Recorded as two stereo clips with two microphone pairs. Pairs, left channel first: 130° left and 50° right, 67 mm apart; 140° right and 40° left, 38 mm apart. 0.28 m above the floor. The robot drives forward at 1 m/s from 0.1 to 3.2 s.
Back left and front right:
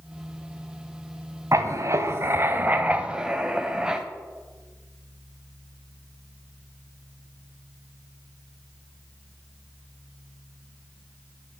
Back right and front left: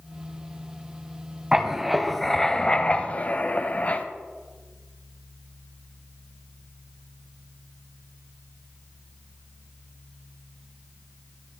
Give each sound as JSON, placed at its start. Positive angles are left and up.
{"t": 1.5, "sound": "writing", "azimuth_deg": -35, "distance_m": 1.8}